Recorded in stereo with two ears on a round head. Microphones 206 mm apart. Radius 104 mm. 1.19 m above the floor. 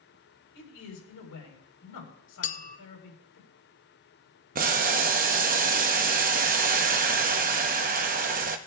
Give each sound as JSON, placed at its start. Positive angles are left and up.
{"t": 0.5, "sound": "a man speaking", "side_deg": 80, "distance_m": 4.0}
{"t": 2.4, "sound": "a clink", "side_deg": 35, "distance_m": 0.5}
{"t": 4.5, "sound": "boiling", "side_deg": -35, "distance_m": 0.8}